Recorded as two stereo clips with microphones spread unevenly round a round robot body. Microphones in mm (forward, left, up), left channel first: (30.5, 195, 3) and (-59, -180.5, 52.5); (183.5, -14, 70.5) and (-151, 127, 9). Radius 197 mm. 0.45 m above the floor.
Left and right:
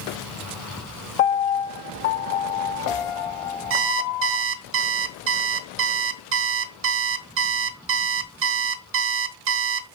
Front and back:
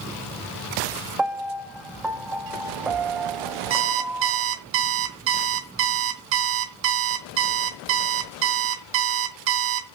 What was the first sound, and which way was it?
A piano, 70° left.